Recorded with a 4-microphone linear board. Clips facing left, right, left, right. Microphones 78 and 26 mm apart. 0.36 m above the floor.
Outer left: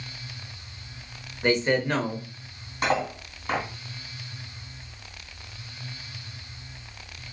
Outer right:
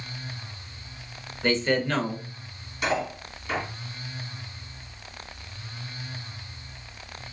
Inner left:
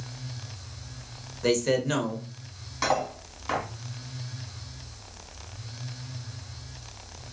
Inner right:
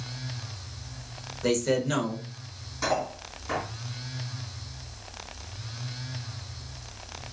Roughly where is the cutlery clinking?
Left.